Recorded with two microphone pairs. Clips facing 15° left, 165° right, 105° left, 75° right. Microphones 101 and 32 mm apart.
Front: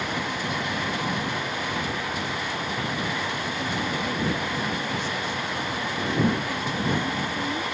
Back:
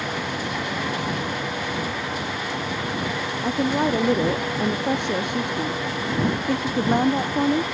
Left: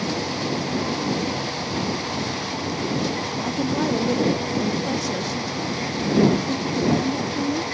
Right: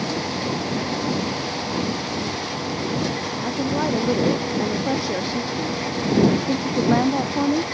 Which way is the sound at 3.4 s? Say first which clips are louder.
Back 7 dB, right 1 dB; 155° right.